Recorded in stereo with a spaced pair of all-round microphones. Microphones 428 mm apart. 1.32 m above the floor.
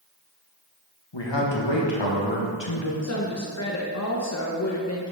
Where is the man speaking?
75° left (ahead or behind), 1.5 m.